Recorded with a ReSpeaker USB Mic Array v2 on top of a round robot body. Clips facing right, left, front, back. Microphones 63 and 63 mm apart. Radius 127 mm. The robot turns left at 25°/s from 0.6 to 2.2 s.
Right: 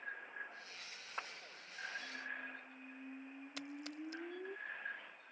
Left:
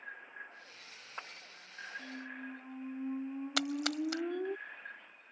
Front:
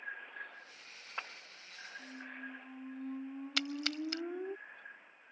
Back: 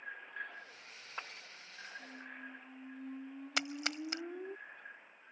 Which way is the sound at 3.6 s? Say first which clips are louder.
Left 13 dB, even; 110° left.